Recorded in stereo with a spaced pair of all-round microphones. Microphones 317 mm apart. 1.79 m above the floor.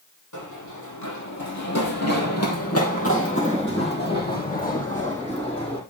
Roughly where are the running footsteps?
Left.